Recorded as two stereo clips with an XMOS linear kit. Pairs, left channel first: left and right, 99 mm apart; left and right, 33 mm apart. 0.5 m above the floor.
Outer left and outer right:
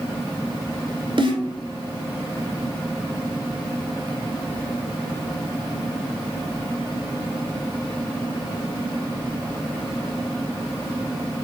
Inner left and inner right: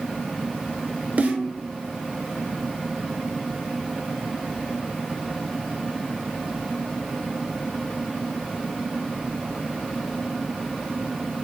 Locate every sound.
1.2 s a snare drum: 55° right (ahead or behind), 1.0 m